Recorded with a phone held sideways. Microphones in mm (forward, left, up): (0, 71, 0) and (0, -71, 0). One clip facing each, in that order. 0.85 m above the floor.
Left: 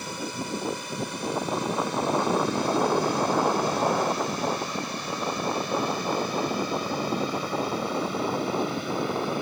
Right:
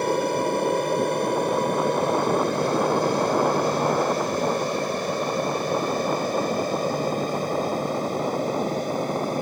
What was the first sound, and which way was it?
An aircraft, 55° right (ahead or behind).